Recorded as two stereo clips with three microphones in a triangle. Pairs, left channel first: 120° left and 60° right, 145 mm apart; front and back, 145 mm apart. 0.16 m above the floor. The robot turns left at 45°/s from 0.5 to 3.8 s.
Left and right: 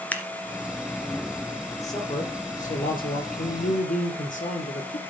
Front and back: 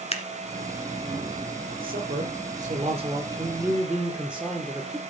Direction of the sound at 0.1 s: 40° left.